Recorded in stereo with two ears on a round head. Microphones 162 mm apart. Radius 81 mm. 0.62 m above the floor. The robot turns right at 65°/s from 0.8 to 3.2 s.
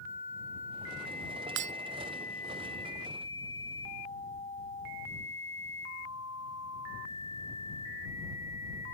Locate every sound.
1.6 s breaking glass: 75° right (ahead or behind); by 1.7 s 60° right (ahead or behind)